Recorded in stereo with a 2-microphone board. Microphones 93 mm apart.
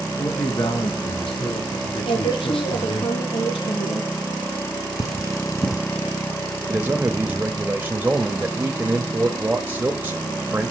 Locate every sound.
0.2 s a man speaking: 55° left (ahead or behind), 4 m; by 3.0 s 70° left (ahead or behind), 5 m
2.0 s a woman speaking: 75° left (ahead or behind), 7 m
5.0 s cutlery clinking: 35° left (ahead or behind), 2 m
6.7 s a man speaking: 20° right (ahead or behind), 1.3 m